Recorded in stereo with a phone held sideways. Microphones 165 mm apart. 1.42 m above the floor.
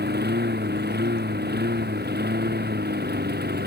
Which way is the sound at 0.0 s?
85° right.